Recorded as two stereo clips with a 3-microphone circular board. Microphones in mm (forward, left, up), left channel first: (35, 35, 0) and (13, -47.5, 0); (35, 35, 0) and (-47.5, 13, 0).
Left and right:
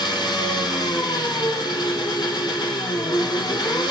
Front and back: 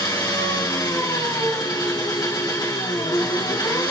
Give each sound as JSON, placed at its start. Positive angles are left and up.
{"t": 0.0, "sound": "an engine running", "azimuth_deg": 50, "distance_m": 3.5}